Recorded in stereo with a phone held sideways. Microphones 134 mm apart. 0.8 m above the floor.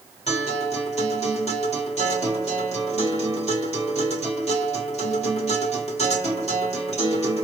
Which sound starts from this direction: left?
A guitar, at 0.3 s.